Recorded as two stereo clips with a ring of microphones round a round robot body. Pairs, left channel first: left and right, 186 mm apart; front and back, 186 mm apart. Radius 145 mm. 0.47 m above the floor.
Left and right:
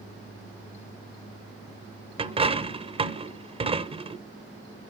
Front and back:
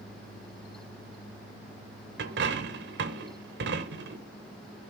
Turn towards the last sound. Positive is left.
turn(degrees=-150)